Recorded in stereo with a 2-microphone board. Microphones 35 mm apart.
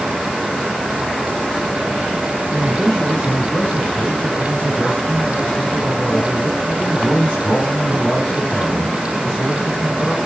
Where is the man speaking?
45° left (ahead or behind), 3.5 m.